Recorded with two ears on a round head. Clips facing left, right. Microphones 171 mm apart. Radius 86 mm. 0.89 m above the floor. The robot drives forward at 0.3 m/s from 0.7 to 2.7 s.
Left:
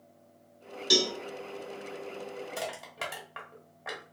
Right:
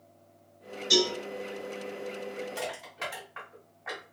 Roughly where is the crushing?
Left.